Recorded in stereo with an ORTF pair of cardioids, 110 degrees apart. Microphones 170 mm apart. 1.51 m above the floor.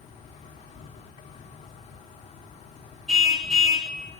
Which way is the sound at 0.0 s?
40° left.